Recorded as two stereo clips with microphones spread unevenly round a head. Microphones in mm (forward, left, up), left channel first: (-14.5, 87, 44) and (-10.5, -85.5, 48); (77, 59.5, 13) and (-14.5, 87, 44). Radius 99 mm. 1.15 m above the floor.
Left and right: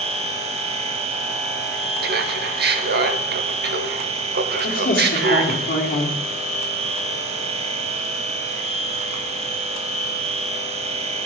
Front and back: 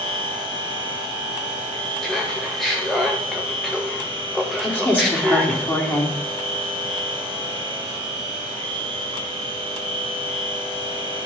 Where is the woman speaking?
50° left, 3 m.